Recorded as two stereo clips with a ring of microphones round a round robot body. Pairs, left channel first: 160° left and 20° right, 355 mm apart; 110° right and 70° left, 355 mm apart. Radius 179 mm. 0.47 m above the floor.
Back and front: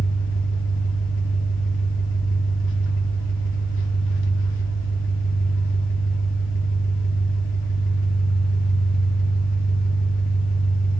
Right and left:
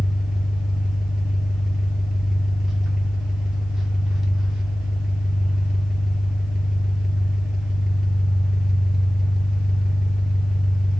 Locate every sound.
0.0 s an engine running: 155° left, 0.7 m